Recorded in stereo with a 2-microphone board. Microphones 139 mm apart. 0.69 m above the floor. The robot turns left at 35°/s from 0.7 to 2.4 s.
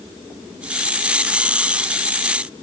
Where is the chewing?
No chewing in this recording.